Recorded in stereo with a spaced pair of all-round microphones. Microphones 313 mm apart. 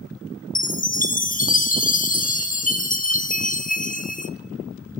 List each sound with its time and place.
0.6 s a chime: 25° left (ahead or behind), 0.7 m